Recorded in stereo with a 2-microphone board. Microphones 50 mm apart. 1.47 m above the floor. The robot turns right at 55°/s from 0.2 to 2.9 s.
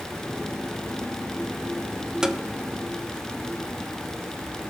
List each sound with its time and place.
2.2 s tapping: 15° right (ahead or behind), 0.5 m; by 2.4 s 10° right (ahead or behind), 0.5 m